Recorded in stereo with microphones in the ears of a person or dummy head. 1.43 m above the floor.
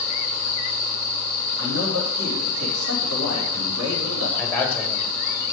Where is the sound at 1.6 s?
80° right, 2.5 m.